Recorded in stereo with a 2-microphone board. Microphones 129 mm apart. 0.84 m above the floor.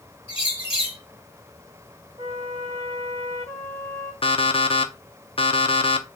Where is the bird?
45° left (ahead or behind), 1.7 m.